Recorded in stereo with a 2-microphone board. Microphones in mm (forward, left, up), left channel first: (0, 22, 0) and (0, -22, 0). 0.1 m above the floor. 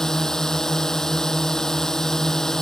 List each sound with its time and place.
0.0 s a drone: 10° left (ahead or behind)